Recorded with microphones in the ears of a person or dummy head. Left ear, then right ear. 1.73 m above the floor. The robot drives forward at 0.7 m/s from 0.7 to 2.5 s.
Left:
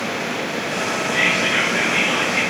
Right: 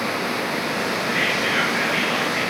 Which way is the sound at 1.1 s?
30° right (ahead or behind).